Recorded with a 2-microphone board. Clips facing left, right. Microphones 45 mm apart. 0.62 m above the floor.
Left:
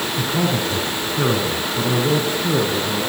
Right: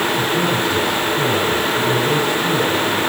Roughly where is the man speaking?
Left.